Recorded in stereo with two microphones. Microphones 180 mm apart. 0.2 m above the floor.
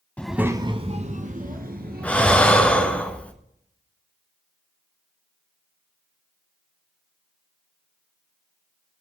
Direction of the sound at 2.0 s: 10° left (ahead or behind).